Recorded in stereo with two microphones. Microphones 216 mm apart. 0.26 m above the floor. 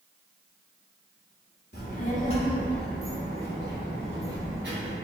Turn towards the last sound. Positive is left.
turn(degrees=-55)  # may be behind; listen again after turning